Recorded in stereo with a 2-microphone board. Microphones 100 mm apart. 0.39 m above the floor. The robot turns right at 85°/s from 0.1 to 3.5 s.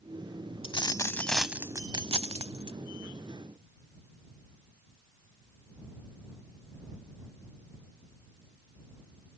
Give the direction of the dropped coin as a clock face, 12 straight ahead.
8 o'clock.